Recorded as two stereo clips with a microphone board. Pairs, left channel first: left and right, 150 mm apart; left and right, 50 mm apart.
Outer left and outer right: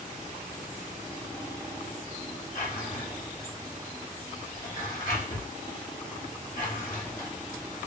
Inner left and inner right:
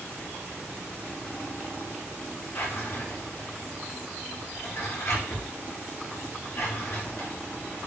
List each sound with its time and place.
2.5 s a drawer: 70° left (ahead or behind), 1.5 m